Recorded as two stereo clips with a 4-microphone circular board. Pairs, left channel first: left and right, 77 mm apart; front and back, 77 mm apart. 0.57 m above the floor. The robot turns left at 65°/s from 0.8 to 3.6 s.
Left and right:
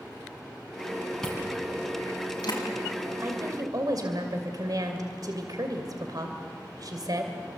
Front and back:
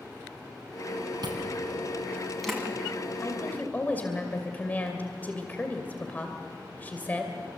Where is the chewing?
170° left, 5.5 m; by 2.6 s 80° left, 5.5 m.